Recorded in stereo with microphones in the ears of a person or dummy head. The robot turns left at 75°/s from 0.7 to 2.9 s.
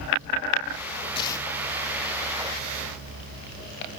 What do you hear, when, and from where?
1.1 s tearing paper: 30° left (ahead or behind), 1.1 m; by 1.5 s 5° left (ahead or behind), 1.1 m